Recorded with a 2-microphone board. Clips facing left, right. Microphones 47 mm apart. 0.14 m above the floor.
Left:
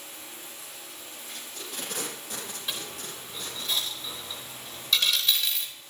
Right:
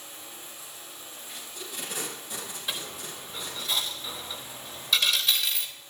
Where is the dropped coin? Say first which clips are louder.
Right 2 dB; 5° right (ahead or behind), 3.5 m.